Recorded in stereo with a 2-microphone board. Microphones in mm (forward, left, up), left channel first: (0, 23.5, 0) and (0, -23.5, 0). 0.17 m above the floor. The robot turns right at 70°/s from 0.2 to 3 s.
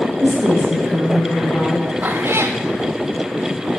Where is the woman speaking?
65° right, 7 m; by 1.9 s 55° left, 7 m.